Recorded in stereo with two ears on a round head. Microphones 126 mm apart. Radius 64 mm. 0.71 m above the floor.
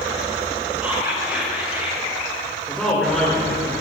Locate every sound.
0.8 s whispering: 10° right (ahead or behind), 3.5 m
2.7 s a man speaking: 5° left (ahead or behind), 2 m